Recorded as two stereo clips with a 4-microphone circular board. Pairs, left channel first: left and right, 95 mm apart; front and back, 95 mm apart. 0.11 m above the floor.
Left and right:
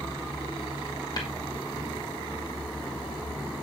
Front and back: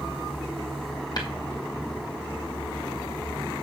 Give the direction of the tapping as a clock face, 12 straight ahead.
11 o'clock.